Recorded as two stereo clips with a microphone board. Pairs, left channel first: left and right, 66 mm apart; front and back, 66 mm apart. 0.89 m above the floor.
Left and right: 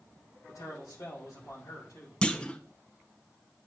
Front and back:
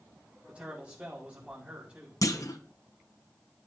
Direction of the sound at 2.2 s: 15° left.